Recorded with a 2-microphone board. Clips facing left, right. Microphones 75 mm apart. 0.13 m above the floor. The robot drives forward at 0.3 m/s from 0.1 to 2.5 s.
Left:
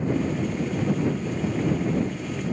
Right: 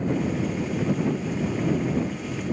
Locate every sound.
Only background noise.